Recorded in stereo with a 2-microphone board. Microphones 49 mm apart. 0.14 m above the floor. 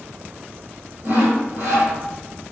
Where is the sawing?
55° right (ahead or behind), 2.5 m.